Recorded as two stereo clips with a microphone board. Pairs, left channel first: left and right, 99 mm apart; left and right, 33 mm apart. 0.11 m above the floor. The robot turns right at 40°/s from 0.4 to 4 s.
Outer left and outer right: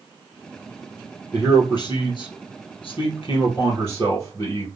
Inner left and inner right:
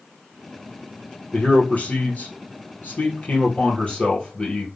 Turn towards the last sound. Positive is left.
turn(degrees=145)